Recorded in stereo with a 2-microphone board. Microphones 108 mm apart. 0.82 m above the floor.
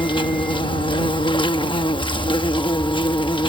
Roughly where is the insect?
Left.